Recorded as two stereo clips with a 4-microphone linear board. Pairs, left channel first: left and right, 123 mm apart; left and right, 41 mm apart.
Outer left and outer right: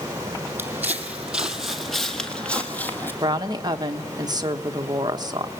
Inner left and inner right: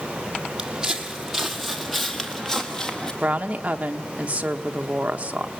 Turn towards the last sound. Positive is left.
turn(degrees=-35)  # may be behind; listen again after turning